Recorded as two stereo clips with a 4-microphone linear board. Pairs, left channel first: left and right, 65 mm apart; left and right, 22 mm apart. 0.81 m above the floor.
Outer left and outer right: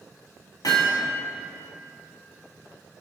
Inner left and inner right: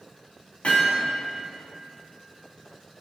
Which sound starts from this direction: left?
Hammering, at 0.6 s.